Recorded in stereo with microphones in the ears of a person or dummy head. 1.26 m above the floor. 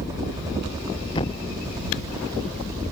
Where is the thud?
30° left (ahead or behind).